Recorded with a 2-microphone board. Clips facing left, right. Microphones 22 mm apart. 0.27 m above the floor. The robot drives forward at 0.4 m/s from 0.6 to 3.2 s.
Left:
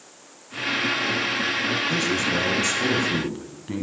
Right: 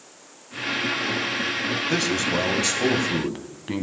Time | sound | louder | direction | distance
1.9 | a man speaking | even | 30° right (ahead or behind) | 1.6 m